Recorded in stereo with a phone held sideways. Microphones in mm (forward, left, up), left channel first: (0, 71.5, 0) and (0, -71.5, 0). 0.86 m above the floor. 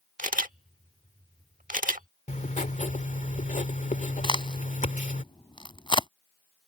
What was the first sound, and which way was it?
A camera shutter, 70° right (ahead or behind).